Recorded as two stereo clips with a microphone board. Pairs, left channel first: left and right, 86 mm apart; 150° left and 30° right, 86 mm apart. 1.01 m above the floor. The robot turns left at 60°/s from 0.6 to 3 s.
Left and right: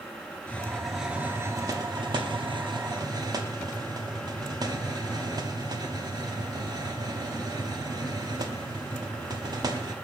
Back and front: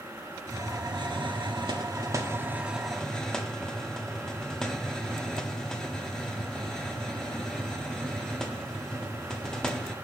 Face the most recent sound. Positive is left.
turn(degrees=-125)